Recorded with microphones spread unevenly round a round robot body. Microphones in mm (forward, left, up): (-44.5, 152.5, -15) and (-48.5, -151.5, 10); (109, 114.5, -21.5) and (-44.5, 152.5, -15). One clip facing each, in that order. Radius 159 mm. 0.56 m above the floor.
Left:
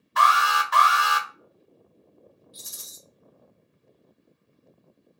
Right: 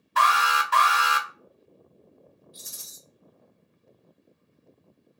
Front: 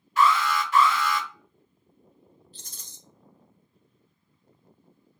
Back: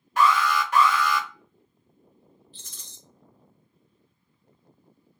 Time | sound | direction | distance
0.2 | an alarm | 145° right | 0.9 m
2.5 | a rattle | 40° left | 1.2 m